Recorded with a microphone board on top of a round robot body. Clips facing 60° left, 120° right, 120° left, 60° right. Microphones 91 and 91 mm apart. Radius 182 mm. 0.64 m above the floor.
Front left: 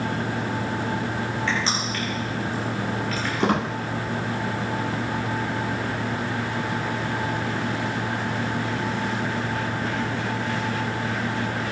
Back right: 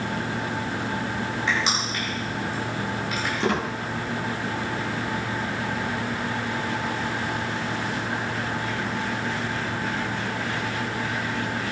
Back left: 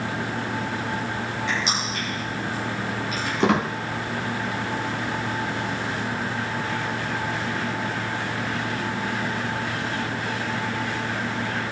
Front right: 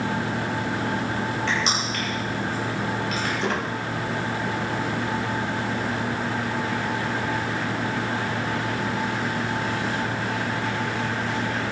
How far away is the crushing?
About 9 m.